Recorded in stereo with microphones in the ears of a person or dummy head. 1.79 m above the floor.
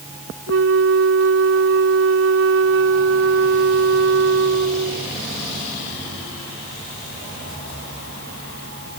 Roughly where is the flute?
Right.